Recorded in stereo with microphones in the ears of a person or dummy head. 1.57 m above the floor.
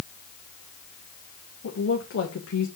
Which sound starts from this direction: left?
A woman speaking, at 1.6 s.